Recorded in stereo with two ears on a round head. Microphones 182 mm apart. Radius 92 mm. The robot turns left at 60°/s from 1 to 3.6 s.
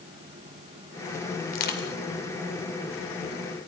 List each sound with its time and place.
1.5 s crushing: 40° left (ahead or behind), 2 m; by 1.9 s 65° left (ahead or behind), 2 m